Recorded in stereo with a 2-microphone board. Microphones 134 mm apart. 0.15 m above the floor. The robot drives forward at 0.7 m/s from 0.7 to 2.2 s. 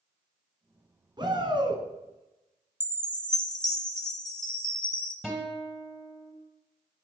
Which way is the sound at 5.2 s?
Centre (ahead or behind).